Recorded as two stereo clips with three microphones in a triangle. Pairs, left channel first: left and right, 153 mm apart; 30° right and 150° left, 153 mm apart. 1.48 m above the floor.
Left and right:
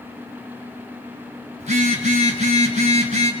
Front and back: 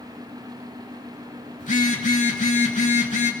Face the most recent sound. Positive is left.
turn(degrees=-55)